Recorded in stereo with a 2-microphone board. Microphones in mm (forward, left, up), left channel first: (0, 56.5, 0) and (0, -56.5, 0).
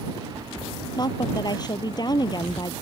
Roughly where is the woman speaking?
Left.